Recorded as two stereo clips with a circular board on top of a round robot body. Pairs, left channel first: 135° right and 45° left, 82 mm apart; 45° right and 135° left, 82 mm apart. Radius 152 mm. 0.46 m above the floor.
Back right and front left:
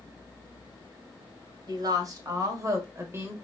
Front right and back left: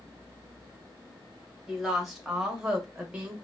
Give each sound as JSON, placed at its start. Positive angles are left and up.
{"t": 1.7, "sound": "a woman speaking", "azimuth_deg": 50, "distance_m": 2.0}